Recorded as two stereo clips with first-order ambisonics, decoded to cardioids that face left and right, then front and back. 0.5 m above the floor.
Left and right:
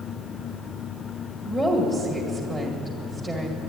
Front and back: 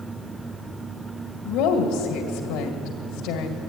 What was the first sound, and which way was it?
A woman speaking, 15° right.